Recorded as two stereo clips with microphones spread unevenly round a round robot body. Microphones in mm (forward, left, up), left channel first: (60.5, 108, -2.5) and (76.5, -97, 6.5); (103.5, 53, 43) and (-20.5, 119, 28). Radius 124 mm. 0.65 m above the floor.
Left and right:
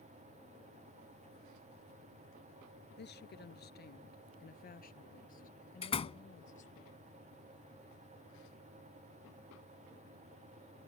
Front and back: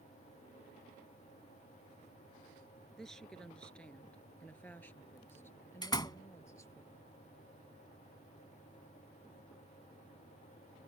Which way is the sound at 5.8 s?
30° left.